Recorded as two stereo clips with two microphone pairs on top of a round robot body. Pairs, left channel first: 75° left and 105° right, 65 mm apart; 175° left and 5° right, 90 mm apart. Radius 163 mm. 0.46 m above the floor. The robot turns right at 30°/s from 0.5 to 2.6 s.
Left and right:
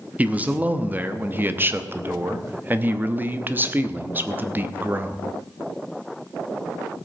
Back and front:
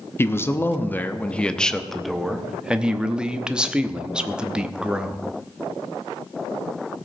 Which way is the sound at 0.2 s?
145° right.